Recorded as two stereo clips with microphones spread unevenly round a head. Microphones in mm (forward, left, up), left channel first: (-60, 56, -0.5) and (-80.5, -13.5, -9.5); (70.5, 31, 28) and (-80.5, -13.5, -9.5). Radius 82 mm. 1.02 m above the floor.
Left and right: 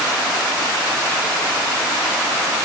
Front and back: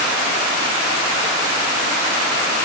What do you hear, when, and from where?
Only background noise.